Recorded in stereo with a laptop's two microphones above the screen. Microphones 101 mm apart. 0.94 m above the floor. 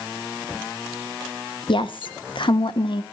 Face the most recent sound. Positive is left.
turn(degrees=60)  # may be behind; listen again after turning